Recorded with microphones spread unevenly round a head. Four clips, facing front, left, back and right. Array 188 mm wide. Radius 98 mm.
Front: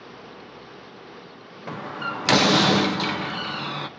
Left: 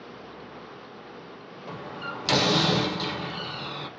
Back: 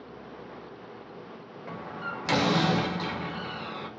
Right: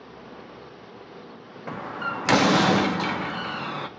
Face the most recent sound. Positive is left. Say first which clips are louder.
# right 5 dB, front 6 dB
turn(degrees=-25)